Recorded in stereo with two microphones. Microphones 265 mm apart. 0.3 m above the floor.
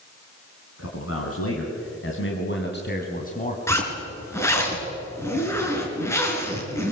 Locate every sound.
0.8 s a man speaking: 60° left (ahead or behind), 3.5 m; by 3.6 s 25° left (ahead or behind), 2.5 m
3.7 s a zipper: 10° left (ahead or behind), 4 m